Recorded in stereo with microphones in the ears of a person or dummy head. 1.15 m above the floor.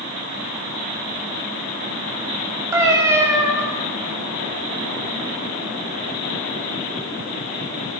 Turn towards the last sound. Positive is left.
turn(degrees=-15)  # may be behind; listen again after turning